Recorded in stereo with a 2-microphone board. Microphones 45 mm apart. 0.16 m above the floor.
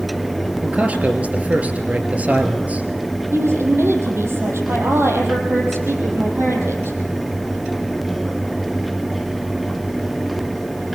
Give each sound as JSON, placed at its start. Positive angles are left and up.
{"t": 0.6, "sound": "a man speaking", "side_deg": -35, "distance_m": 2.5}
{"t": 3.3, "sound": "a woman speaking", "side_deg": -75, "distance_m": 5.0}